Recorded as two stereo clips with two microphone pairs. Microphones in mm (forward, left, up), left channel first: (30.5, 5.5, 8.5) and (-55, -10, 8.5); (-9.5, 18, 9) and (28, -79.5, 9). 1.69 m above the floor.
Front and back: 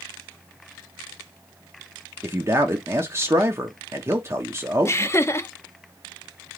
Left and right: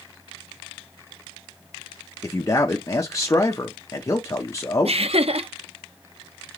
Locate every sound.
2.2 s a man speaking: 155° left, 0.8 m
4.8 s laughter: 50° right, 0.7 m